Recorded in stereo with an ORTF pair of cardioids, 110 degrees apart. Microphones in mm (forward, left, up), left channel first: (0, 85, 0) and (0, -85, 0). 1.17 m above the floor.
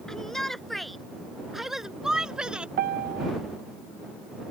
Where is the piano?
65° right.